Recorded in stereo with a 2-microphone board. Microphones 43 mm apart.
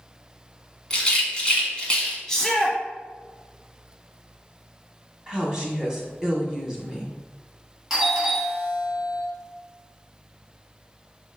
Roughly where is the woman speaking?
Centre.